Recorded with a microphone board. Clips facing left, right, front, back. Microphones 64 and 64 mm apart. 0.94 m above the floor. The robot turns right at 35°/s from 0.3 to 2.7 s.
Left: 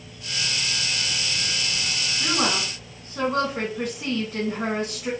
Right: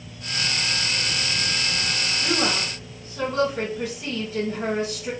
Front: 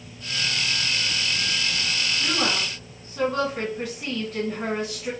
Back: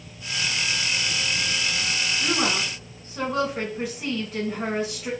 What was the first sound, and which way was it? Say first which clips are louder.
A woman speaking: left 1 dB, back 1 dB; 90° left.